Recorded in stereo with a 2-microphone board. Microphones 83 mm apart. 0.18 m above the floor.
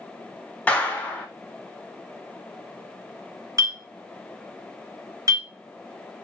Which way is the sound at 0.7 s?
15° left (ahead or behind).